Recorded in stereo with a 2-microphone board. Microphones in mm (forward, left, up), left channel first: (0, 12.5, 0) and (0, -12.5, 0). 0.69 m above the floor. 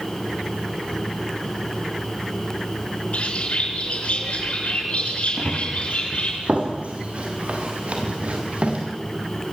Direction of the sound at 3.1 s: 55° left (ahead or behind).